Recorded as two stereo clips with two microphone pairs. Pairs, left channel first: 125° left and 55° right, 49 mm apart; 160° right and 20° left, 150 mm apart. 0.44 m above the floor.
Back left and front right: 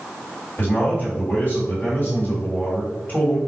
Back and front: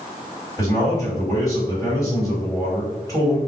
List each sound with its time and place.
0.6 s a man speaking: 145° left, 1.6 m